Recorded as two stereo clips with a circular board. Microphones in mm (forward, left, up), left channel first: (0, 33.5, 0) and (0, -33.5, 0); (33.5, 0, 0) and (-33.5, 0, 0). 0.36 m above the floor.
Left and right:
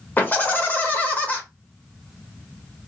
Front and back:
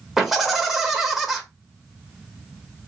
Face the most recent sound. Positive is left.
turn(degrees=100)